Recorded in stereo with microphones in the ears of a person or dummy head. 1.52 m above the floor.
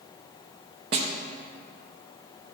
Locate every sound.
0.9 s a snare drum: 35° right (ahead or behind), 0.9 m